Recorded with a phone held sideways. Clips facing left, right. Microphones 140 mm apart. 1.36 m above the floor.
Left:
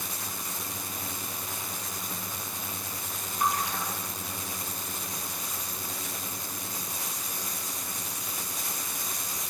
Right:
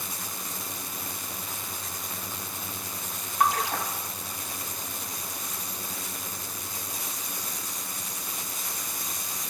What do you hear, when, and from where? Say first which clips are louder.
3.4 s a splash: right 4 dB; 80° right, 2.5 m